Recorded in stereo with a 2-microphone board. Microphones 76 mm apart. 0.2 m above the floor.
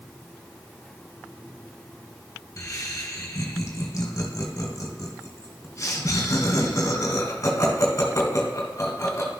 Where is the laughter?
45° left (ahead or behind), 1.5 m.